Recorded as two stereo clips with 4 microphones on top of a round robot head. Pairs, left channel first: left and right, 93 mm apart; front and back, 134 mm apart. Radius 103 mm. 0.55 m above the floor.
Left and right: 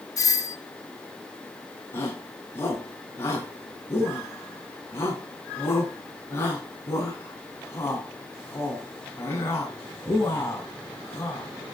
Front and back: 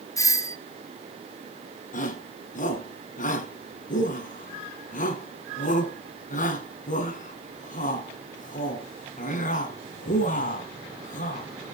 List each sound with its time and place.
0.2 s a doorbell: 55° left, 1.7 m
1.9 s a shout: 20° left, 5.5 m